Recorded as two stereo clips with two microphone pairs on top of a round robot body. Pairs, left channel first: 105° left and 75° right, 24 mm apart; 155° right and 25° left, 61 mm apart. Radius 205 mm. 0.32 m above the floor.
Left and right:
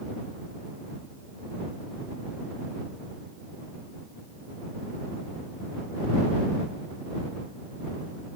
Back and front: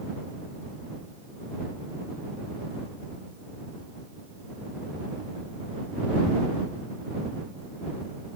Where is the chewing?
I don't hear chewing.